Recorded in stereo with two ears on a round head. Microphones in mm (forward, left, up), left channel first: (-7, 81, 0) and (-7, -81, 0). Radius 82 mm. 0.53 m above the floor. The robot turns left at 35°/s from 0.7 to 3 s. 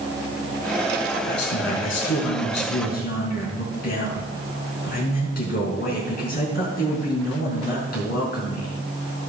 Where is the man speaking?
120° left, 4.5 m; by 8.7 s 55° left, 4.5 m.